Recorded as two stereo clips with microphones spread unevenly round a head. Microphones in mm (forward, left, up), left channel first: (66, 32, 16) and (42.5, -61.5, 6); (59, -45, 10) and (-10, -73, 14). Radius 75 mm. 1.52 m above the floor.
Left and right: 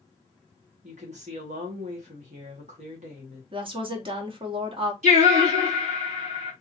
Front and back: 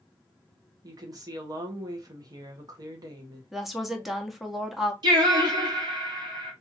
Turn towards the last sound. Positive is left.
turn(degrees=-135)